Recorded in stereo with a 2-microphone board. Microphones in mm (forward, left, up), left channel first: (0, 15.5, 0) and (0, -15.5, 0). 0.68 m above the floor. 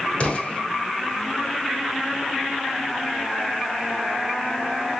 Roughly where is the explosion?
Left.